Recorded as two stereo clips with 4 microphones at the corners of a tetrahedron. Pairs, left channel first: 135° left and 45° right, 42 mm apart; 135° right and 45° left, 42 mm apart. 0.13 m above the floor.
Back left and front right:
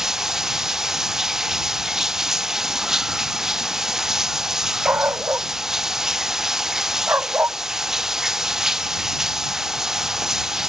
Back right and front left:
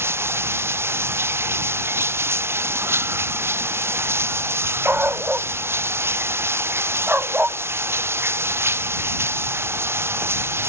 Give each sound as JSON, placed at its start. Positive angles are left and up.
{"t": 0.0, "sound": "running water", "azimuth_deg": 35}
{"t": 4.8, "sound": "a dog barking", "azimuth_deg": -10}